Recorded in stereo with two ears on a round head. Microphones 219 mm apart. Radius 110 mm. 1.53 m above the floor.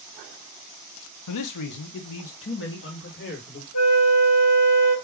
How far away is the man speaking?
About 0.6 m.